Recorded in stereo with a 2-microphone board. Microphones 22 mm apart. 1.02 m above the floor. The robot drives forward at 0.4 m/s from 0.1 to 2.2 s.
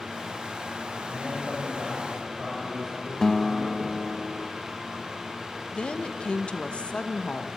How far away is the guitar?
About 0.6 m.